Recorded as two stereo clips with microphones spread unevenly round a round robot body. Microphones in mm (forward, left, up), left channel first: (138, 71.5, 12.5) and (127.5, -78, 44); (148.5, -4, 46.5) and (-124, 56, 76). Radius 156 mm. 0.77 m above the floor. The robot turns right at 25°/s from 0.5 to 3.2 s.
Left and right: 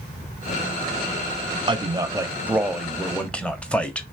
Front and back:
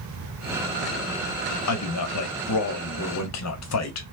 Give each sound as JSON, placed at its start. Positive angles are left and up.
{"t": 1.7, "sound": "a man speaking", "azimuth_deg": -30, "distance_m": 1.2}